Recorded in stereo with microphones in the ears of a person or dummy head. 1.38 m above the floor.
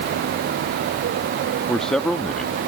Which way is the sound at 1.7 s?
5° left (ahead or behind).